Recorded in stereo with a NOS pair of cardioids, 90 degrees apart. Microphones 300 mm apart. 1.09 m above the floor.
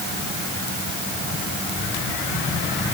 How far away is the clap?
No clap in this recording.